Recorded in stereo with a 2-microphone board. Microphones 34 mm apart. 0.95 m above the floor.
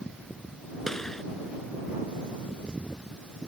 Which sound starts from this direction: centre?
A gunshot, at 0.9 s.